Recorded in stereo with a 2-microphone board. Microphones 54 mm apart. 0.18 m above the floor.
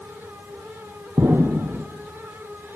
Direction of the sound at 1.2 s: 45° right (ahead or behind).